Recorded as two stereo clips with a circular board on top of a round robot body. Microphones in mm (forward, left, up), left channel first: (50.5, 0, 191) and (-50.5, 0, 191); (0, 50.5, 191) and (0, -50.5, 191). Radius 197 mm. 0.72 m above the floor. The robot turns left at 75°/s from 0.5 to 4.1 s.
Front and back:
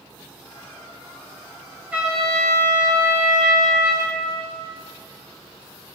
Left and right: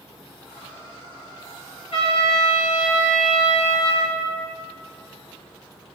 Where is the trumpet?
105° left, 3 m; by 4.2 s 60° right, 3 m.